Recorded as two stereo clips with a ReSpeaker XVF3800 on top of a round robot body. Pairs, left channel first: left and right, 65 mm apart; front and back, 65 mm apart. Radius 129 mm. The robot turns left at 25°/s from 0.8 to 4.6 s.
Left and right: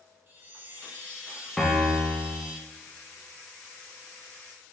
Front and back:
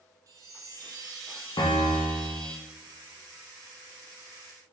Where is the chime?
150° right, 0.6 m; by 2.6 s 165° left, 0.6 m.